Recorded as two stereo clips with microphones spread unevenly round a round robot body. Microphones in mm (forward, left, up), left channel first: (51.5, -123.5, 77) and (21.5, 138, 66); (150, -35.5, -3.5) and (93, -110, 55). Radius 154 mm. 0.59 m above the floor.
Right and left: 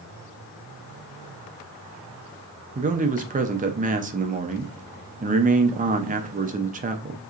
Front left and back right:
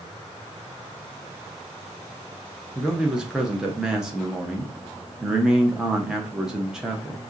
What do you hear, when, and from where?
2.8 s a man speaking: 80° left, 0.6 m